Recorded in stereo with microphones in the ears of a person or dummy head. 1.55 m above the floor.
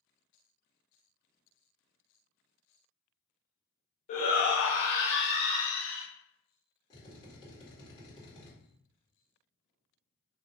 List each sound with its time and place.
4.1 s a shout: 45° left (ahead or behind), 0.8 m; by 6.0 s 50° left (ahead or behind), 1.3 m
6.9 s a drill: 20° left (ahead or behind), 1.8 m